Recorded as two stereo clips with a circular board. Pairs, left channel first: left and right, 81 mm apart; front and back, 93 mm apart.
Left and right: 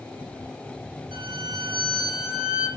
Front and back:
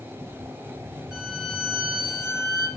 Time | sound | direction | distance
1.1 | a violin | 95° right | 4.5 m